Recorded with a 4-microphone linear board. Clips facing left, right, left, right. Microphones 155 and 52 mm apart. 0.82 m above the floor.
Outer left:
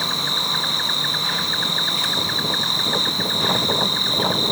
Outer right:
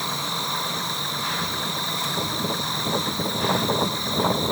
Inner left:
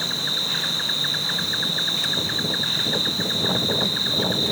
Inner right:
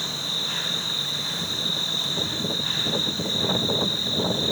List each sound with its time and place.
0.0 s an insect: 70° left (ahead or behind), 0.7 m